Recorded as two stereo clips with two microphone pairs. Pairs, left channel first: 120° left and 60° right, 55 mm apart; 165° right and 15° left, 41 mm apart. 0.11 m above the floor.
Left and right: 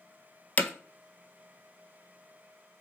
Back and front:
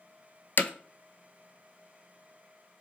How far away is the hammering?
About 0.5 m.